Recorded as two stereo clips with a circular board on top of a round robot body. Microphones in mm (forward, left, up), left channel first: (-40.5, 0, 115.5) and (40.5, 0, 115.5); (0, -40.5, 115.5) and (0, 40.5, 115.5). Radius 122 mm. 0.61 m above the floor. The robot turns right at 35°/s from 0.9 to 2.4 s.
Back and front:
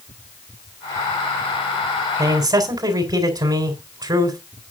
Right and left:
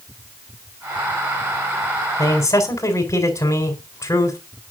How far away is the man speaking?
About 4 m.